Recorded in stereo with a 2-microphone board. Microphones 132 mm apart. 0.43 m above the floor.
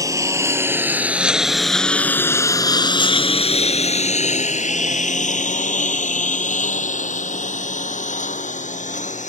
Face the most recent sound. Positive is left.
turn(degrees=80)